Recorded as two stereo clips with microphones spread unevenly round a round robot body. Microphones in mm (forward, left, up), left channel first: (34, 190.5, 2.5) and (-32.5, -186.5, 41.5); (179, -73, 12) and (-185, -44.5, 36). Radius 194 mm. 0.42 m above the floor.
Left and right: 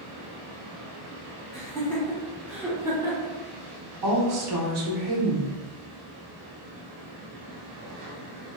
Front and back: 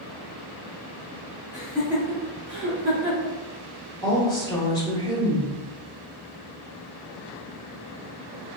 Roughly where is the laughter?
Ahead left.